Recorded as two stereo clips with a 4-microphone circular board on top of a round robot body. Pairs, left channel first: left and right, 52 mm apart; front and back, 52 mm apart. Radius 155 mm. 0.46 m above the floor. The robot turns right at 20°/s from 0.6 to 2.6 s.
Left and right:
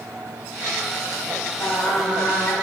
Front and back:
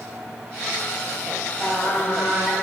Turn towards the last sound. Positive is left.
turn(degrees=110)